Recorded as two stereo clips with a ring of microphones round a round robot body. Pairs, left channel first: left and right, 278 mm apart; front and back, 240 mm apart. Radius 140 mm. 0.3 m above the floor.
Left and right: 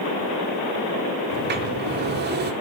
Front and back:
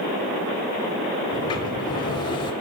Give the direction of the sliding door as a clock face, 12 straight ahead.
2 o'clock.